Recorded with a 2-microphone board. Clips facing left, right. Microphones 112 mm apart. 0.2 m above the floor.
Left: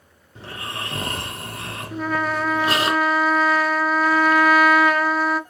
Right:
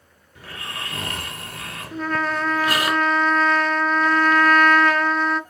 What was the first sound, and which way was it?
Snoring, 30° left (ahead or behind).